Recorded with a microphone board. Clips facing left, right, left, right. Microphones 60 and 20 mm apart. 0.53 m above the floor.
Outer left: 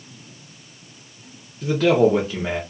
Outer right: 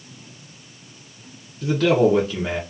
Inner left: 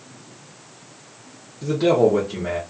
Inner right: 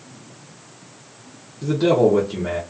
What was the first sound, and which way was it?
A man speaking, 5° left (ahead or behind).